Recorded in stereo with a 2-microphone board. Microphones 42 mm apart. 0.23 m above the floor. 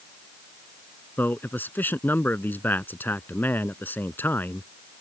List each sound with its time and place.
1.2 s a man speaking: 50° left (ahead or behind)